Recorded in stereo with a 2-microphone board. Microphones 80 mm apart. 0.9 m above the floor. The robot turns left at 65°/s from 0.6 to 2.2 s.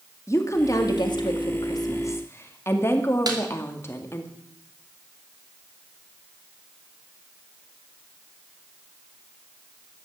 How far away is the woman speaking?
About 2 m.